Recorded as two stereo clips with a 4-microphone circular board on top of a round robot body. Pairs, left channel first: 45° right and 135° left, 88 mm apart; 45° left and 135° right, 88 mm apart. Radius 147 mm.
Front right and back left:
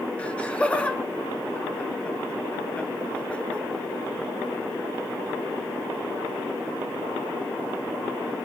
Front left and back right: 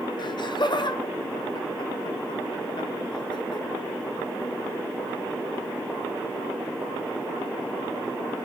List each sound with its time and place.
0.2 s laughter: 30° left, 1.4 m